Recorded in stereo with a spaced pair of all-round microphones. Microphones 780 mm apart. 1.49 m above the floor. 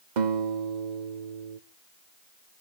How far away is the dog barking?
I don't hear a dog barking.